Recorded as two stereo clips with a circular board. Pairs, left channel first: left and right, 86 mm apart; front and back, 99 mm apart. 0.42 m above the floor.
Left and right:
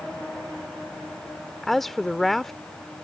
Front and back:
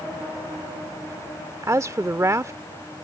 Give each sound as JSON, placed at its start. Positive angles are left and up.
{"t": 1.6, "sound": "a woman speaking", "azimuth_deg": 175}